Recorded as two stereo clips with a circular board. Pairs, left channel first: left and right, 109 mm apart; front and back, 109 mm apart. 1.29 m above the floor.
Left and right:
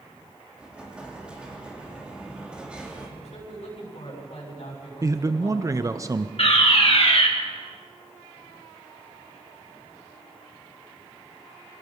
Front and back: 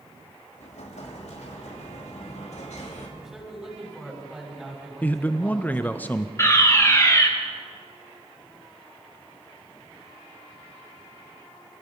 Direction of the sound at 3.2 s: 90° left.